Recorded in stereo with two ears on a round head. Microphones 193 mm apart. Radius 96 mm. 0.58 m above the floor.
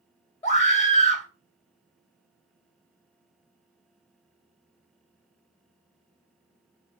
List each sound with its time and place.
0.4 s a scream: 35° left (ahead or behind), 2.5 m